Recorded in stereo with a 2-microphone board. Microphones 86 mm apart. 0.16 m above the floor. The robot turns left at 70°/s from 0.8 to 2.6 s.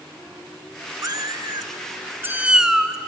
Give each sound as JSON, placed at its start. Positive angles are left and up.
{"t": 1.0, "sound": "a cat meowing", "azimuth_deg": -60, "distance_m": 0.6}